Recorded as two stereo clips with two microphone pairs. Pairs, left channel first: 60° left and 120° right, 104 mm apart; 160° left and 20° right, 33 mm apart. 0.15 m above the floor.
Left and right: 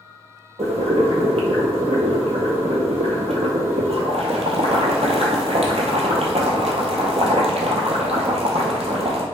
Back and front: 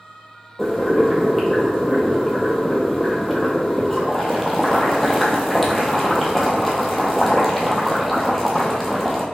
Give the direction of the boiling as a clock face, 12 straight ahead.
4 o'clock.